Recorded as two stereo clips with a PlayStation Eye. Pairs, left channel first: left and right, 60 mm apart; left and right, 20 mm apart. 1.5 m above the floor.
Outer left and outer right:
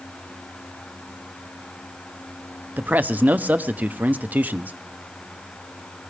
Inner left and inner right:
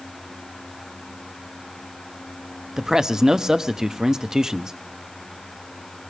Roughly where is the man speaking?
Right.